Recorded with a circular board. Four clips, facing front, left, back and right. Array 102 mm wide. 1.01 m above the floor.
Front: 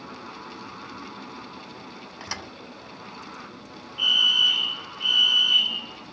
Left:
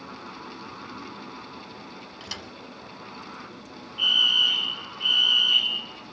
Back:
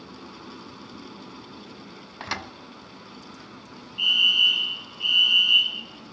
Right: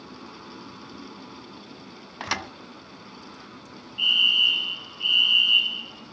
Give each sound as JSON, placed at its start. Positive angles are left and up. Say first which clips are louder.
{"t": 2.2, "sound": "a thud", "louder": "right 13 dB, back 5 dB", "azimuth_deg": -105, "distance_m": 1.3}
{"t": 4.0, "sound": "a fire alarm", "louder": "even, even", "azimuth_deg": 45, "distance_m": 4.0}